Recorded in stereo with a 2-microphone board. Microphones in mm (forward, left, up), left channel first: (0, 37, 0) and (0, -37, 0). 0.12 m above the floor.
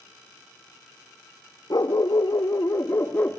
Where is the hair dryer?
I don't hear a hair dryer.